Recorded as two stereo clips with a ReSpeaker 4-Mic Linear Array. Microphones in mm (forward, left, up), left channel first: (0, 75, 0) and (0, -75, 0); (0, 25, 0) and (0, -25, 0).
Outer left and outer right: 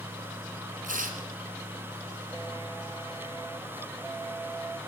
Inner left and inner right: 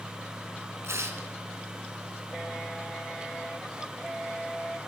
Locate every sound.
0.8 s tearing paper: 65° right (ahead or behind), 2.5 m